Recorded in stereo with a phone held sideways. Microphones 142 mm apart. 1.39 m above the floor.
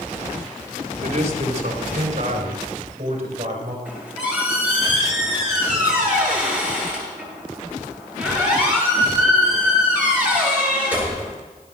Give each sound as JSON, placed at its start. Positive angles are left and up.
{"t": 1.0, "sound": "a man speaking", "side_deg": -50, "distance_m": 3.0}
{"t": 3.9, "sound": "a squeak", "side_deg": -10, "distance_m": 9.5}